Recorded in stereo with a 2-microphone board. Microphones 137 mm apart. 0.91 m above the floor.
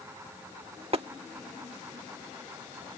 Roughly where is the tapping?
Right.